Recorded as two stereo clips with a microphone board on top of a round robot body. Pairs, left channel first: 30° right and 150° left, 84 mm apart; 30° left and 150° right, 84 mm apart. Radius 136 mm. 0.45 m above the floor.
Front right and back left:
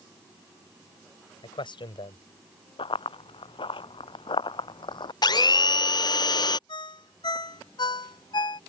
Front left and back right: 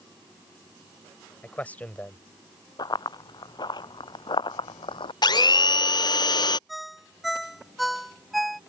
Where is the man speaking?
40° right.